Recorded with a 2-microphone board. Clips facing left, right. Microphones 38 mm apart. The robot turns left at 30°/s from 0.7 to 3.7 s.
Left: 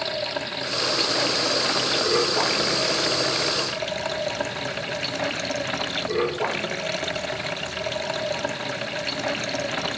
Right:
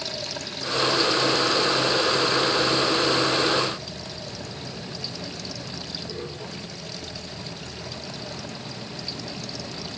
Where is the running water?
150° left; by 10.0 s 60° left.